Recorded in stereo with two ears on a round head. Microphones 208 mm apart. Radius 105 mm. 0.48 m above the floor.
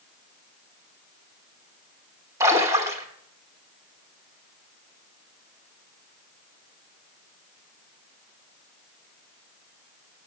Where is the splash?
15° right (ahead or behind), 1.2 m.